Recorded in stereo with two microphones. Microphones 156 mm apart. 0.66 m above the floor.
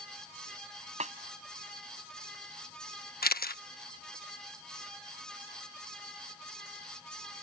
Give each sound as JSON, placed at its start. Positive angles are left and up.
{"t": 1.0, "sound": "a snare drum", "side_deg": -50}
{"t": 3.2, "sound": "a camera shutter", "side_deg": 75}